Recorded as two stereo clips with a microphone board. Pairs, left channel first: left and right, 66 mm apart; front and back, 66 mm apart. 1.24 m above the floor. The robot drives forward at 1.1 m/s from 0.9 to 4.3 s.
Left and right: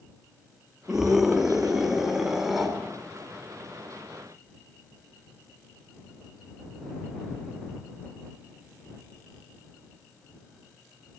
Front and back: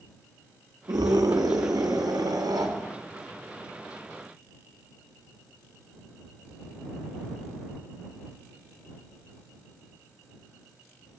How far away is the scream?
About 2 m.